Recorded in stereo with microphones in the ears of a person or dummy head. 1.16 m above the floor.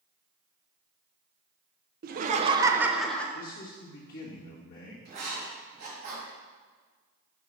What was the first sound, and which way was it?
Laughter, 45° right (ahead or behind).